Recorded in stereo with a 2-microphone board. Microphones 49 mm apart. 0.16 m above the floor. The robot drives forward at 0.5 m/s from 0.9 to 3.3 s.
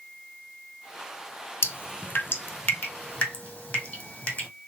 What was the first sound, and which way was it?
Dripping, 60° left (ahead or behind).